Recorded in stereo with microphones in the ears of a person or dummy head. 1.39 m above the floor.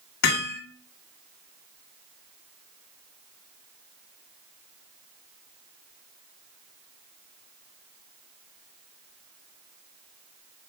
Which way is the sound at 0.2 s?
80° left.